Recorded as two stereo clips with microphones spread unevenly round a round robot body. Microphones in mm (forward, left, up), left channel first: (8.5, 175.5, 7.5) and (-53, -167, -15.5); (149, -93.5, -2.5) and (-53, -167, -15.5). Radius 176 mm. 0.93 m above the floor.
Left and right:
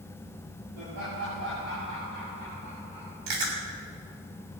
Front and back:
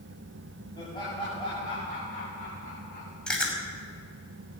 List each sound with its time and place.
0.8 s laughter: 50° right, 7.5 m; by 3.2 s 25° right, 6 m
3.3 s chewing: 65° right, 6.5 m